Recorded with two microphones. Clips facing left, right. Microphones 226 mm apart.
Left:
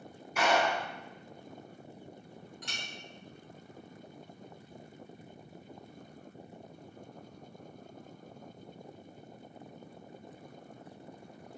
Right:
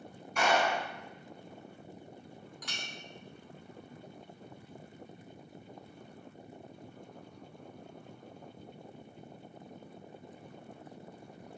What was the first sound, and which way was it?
A clap, 5° left (ahead or behind).